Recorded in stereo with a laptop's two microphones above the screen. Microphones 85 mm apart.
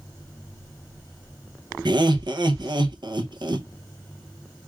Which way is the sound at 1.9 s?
60° right (ahead or behind).